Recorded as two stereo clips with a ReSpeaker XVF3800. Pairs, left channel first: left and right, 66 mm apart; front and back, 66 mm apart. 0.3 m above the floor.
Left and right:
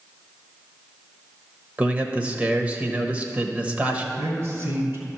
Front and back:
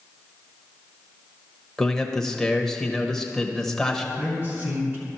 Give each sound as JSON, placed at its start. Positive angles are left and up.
{"t": 1.8, "sound": "a man speaking", "azimuth_deg": -75, "distance_m": 0.9}
{"t": 4.2, "sound": "a man speaking", "azimuth_deg": -130, "distance_m": 2.5}